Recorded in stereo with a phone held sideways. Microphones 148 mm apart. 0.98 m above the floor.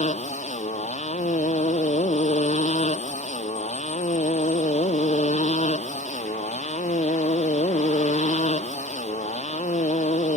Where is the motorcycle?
50° left (ahead or behind).